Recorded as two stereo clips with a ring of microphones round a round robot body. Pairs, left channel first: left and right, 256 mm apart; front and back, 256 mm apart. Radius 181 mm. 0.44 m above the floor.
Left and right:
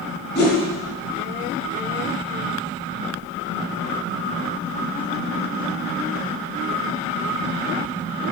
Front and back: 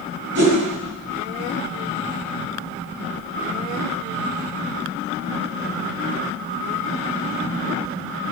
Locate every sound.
0.3 s a whoosh: 135° left, 2 m